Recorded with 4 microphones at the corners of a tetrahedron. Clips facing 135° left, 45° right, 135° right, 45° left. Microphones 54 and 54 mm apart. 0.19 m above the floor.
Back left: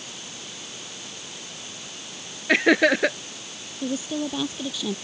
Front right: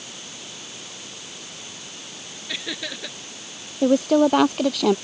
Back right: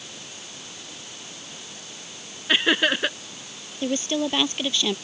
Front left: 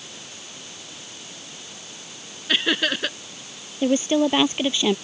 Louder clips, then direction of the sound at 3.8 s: Front right 11 dB, front left 6 dB; 25° right.